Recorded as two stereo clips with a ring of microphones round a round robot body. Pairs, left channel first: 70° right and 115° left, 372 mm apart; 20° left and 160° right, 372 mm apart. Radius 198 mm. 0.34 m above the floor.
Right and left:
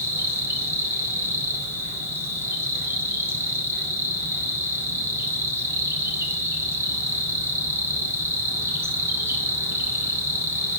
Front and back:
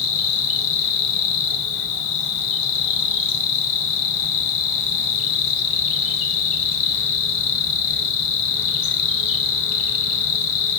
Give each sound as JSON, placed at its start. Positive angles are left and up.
{"t": 0.0, "sound": "an insect", "azimuth_deg": 30, "distance_m": 0.9}